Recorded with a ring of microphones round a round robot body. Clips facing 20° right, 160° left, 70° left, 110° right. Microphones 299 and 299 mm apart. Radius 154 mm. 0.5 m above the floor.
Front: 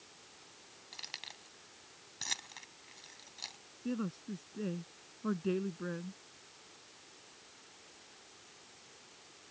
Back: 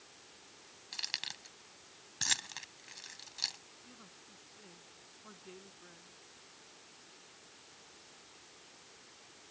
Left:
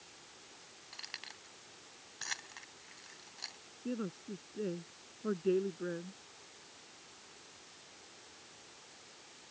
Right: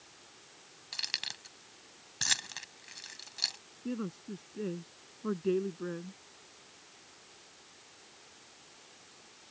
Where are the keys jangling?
145° right.